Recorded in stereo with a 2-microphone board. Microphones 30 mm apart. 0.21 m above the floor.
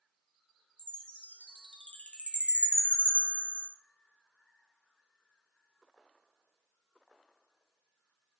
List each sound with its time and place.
0.8 s a chime: 45° left (ahead or behind), 1.4 m